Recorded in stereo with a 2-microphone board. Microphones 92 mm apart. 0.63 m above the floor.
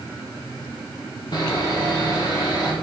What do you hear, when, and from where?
1.3 s sawing: 45° left (ahead or behind), 1.4 m